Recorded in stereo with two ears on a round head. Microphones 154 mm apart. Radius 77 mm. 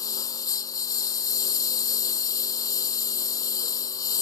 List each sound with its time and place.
0.0 s a lawn mower: 20° left (ahead or behind)